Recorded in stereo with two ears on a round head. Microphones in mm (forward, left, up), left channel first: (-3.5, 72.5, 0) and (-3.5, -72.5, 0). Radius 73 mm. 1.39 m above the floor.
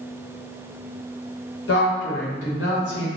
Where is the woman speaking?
80° left, 1.0 m.